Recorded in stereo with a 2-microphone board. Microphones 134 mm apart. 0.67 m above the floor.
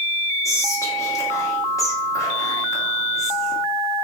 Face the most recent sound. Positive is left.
turn(degrees=25)  # may be behind; listen again after turning